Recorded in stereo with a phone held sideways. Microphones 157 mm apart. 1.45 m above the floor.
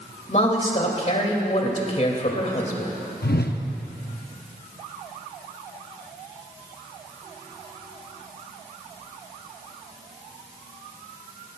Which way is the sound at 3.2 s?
75° left (ahead or behind).